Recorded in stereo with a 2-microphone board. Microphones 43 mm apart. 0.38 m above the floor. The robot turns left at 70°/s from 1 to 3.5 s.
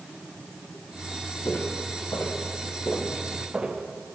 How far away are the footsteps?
About 6 m.